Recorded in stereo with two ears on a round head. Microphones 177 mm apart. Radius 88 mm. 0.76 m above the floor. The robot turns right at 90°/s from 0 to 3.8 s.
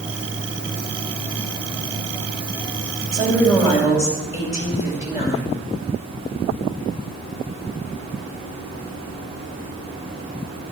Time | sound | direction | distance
3.1 | a woman speaking | 25° right | 4.5 m